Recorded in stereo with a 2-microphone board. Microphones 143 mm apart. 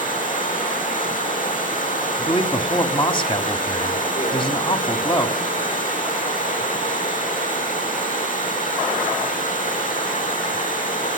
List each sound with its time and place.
0.0 s running water: 70° left (ahead or behind), 7.5 m
2.2 s a man speaking: 40° left (ahead or behind), 1.9 m